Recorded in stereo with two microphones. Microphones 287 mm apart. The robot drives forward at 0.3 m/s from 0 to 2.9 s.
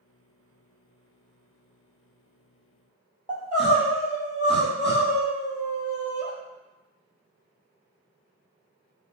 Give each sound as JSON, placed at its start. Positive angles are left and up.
{"t": 3.3, "sound": "crying", "side_deg": 20, "distance_m": 1.0}